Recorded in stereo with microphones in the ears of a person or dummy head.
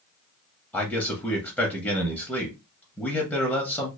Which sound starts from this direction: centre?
A man speaking, at 0.7 s.